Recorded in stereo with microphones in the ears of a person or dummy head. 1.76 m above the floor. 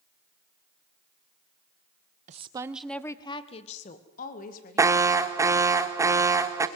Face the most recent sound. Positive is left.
turn(degrees=-10)  # may be behind; listen again after turning